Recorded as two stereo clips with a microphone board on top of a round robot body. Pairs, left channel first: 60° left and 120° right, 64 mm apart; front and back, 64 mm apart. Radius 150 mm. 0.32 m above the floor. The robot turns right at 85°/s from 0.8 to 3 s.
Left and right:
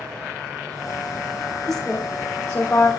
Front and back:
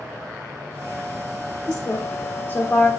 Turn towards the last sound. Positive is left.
turn(degrees=65)